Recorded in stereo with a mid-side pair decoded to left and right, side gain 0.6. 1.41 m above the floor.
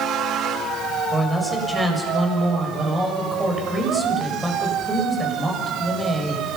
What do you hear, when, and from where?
1.1 s a man speaking: 15° right, 7 m